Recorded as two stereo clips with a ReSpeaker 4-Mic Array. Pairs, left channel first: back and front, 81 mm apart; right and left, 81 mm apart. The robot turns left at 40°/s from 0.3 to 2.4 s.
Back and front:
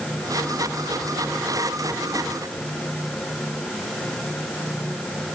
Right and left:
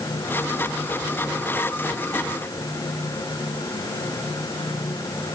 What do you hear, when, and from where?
Only background noise.